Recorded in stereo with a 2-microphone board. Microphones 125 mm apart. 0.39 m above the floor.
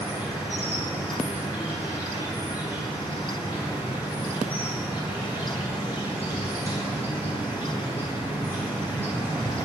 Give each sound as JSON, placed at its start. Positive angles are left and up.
{"t": 0.0, "sound": "an insect", "side_deg": -20, "distance_m": 3.0}